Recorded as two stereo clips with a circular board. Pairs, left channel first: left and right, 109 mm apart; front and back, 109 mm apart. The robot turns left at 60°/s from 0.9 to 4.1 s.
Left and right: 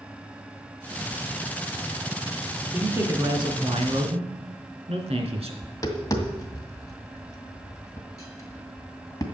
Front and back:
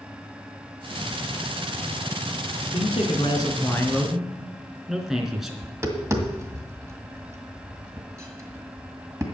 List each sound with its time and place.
2.7 s a man speaking: 10° right, 3 m; by 5.5 s 90° right, 3 m
5.6 s tapping: 130° left, 2 m